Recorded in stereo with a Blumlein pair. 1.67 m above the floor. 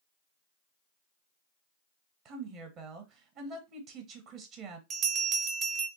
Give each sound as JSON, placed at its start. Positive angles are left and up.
{"t": 2.2, "sound": "a woman speaking", "azimuth_deg": -35, "distance_m": 0.9}
{"t": 4.9, "sound": "a bell", "azimuth_deg": -25, "distance_m": 0.8}